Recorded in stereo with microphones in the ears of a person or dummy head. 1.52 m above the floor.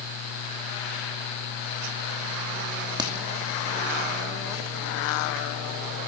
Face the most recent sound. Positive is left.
turn(degrees=-20)  # may be behind; listen again after turning